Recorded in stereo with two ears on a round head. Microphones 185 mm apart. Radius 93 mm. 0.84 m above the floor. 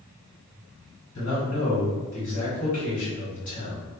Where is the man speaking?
35° left (ahead or behind), 1.4 m.